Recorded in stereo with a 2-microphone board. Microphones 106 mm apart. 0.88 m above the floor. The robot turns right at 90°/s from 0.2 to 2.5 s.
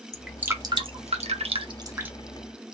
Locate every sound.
0.1 s dripping: 5° left (ahead or behind), 0.8 m; by 2.1 s 10° right (ahead or behind), 0.8 m